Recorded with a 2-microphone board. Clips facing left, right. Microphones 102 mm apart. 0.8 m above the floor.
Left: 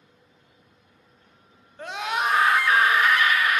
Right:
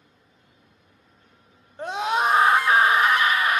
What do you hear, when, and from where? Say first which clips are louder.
1.8 s a scream: right 4 dB; 25° right (ahead or behind), 1.9 m